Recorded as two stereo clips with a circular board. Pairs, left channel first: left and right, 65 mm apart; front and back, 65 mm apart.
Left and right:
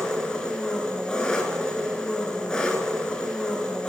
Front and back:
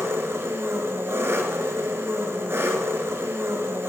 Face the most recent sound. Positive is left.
turn(degrees=165)